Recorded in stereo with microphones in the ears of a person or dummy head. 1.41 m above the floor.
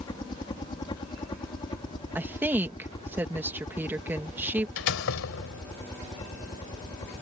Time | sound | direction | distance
0.0 | a helicopter | 25° left (ahead or behind) | ?
2.1 | a woman speaking | 10° right (ahead or behind) | ?
4.8 | a door slam | 80° left | ?